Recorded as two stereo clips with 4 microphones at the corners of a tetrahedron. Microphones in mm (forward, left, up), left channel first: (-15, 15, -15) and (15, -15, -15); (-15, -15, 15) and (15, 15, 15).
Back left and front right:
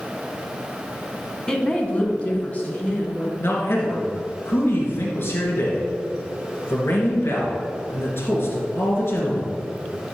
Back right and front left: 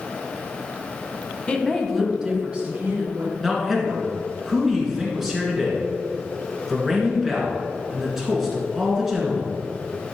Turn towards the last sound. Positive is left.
turn(degrees=130)